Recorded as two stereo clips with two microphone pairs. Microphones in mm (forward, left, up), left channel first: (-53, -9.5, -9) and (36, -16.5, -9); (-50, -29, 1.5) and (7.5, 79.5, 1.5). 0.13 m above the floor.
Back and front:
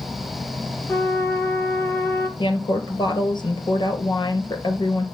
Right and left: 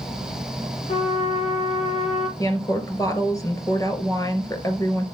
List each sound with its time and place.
0.9 s a trumpet: 125° right, 1.4 m
2.4 s a woman speaking: 175° right, 2.5 m